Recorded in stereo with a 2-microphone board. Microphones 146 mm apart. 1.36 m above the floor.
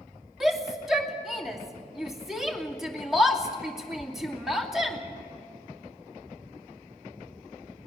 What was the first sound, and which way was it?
A shout, 5° right (ahead or behind).